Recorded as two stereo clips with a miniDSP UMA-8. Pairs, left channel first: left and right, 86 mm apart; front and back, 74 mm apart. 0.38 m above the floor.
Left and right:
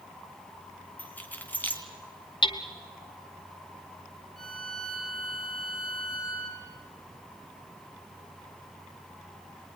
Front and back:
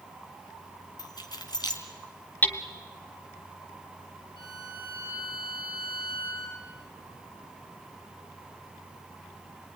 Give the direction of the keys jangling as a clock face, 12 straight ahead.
11 o'clock.